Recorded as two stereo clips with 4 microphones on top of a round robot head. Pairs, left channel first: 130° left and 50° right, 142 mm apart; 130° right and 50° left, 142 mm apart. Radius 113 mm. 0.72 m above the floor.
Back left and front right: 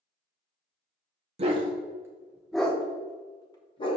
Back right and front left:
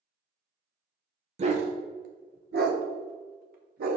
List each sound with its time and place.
1.4 s a dog barking: straight ahead, 0.9 m; by 4.0 s 75° left, 1.3 m